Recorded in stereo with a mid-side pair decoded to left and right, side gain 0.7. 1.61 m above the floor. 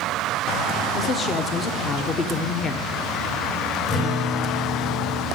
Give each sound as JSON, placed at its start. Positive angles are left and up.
{"t": 0.9, "sound": "a woman speaking", "azimuth_deg": 35, "distance_m": 1.1}
{"t": 3.9, "sound": "a guitar", "azimuth_deg": 45, "distance_m": 4.0}